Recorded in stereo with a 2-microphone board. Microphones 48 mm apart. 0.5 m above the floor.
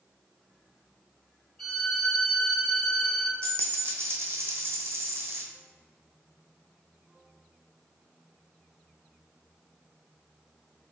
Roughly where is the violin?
Centre.